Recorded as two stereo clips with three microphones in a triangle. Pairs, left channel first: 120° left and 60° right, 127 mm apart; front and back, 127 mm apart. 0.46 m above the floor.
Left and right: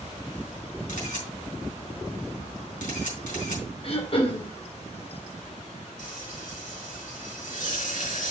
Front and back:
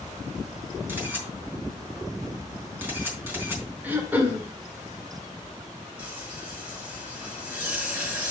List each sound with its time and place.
0.9 s a camera shutter: 105° left, 4 m
3.8 s throat clearing: 110° left, 1.8 m
6.0 s frying: 100° left, 4 m